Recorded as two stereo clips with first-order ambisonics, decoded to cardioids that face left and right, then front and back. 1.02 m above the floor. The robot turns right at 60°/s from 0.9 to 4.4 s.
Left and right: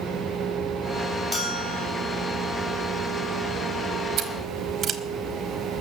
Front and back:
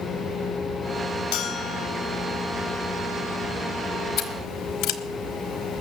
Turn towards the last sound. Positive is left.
turn(degrees=-25)